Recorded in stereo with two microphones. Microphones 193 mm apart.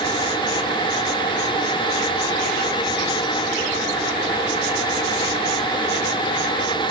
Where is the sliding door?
No sliding door in this recording.